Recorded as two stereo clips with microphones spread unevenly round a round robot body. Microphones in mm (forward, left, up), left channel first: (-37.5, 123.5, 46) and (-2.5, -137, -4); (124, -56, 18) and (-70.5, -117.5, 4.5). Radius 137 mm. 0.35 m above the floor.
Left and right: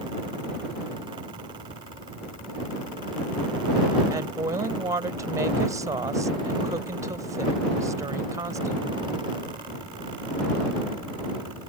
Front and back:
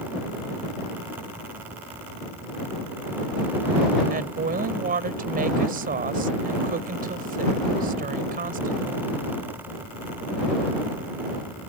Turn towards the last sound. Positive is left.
turn(degrees=-145)